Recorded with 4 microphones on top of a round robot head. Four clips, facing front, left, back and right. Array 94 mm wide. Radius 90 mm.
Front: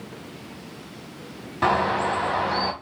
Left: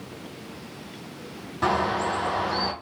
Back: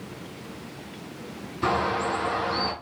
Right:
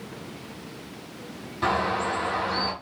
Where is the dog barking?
No dog barking in this recording.